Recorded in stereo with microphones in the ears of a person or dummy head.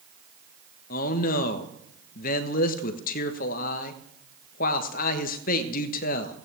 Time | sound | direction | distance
0.9 | a man speaking | 45° left (ahead or behind) | 1.2 m